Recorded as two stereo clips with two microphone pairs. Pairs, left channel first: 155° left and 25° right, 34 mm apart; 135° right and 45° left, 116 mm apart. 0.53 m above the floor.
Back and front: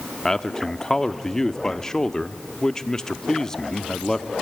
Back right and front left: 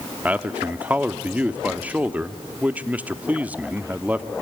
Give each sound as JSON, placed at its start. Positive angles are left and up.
{"t": 0.2, "sound": "a man speaking", "azimuth_deg": 105, "distance_m": 0.9}